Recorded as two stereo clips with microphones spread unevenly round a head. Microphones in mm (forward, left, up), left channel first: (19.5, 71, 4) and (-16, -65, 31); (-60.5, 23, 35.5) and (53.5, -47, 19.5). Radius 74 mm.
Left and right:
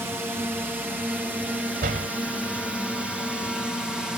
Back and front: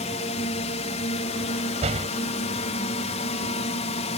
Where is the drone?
175° left; by 4.2 s 160° left.